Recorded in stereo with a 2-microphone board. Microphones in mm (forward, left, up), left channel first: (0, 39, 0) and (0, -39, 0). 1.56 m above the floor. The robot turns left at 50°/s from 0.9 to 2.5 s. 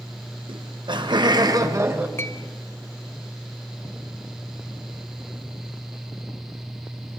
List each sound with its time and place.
0.5 s laughter: 95° right, 1.8 m; by 2.1 s 155° right, 1.8 m
2.2 s a clink: 30° left (ahead or behind), 0.8 m; by 2.4 s 35° left (ahead or behind), 0.8 m